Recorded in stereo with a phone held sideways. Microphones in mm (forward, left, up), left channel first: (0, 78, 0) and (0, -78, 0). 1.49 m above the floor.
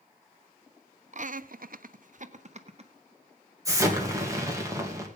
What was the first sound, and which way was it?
Laughter, 50° right (ahead or behind).